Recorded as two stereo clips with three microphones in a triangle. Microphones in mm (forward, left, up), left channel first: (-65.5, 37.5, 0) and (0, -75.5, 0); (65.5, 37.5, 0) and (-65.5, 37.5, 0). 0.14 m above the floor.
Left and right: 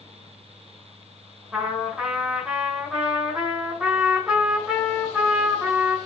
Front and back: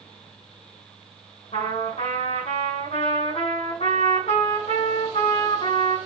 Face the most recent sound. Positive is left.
turn(degrees=25)